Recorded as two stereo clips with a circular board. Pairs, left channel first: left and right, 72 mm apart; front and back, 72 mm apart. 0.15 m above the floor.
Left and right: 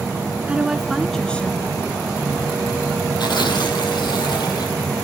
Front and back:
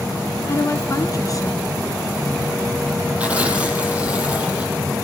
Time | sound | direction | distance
0.5 | a woman speaking | 20° right | 1.7 m
3.2 | tearing paper | 110° left | 6 m